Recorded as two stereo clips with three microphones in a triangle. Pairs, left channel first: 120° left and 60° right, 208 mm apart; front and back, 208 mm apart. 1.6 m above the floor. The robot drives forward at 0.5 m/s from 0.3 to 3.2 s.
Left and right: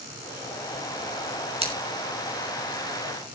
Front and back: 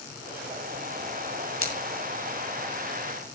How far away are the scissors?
About 6 m.